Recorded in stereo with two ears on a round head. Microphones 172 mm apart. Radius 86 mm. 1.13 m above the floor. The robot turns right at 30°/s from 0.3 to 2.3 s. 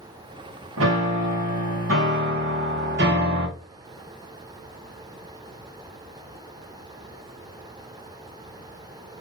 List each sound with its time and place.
0.8 s a piano: 100° right, 1.3 m; by 3.5 s 55° right, 1.3 m